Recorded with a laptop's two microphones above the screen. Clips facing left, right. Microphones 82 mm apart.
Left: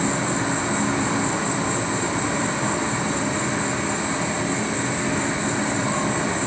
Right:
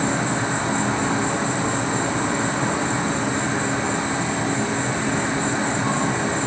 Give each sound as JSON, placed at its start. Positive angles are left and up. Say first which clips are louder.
{"t": 0.0, "sound": "an insect", "louder": "right 1 dB", "side_deg": -55, "distance_m": 1.4}